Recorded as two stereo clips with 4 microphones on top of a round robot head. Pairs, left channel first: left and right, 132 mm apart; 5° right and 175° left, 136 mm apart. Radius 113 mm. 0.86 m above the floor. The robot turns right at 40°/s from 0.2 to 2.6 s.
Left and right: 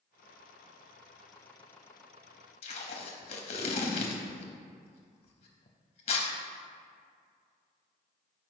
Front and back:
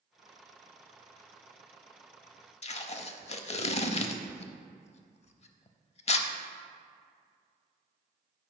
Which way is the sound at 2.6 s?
40° left.